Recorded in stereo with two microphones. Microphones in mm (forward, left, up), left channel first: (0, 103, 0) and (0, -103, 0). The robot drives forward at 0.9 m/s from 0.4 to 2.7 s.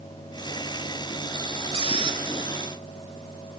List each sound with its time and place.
1.7 s a squeak: 30° right (ahead or behind), 1.0 m; by 2.2 s 25° right (ahead or behind), 1.1 m